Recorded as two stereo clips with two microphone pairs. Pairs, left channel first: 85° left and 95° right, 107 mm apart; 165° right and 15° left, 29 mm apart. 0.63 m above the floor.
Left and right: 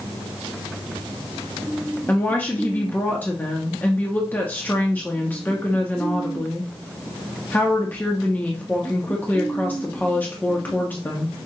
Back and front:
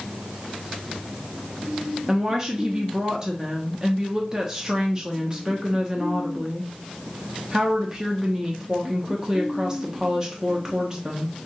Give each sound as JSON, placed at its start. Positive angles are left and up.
{"t": 2.1, "sound": "a woman speaking", "azimuth_deg": 45, "distance_m": 0.6}